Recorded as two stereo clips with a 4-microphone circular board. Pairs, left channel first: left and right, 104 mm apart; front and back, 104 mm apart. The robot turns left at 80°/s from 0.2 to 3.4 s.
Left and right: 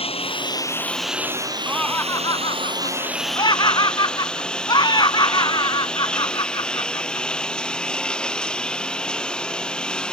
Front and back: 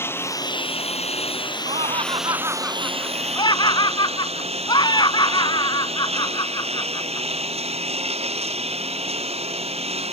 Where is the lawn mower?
65° left; by 10.1 s 170° left.